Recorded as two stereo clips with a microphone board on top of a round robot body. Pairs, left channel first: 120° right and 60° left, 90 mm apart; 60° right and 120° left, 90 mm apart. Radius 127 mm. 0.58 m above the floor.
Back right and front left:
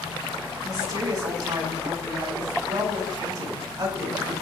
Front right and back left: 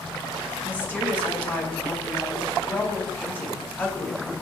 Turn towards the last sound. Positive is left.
turn(degrees=10)